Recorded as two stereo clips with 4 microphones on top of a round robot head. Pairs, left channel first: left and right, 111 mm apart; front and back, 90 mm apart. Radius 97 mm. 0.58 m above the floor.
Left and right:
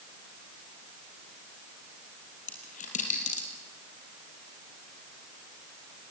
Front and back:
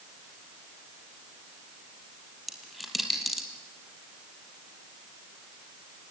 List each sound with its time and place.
2.5 s a dropped coin: 90° left, 4 m